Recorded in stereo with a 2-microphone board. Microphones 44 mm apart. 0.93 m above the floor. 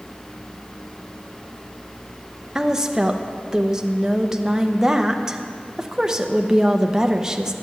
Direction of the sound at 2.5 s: 15° right (ahead or behind).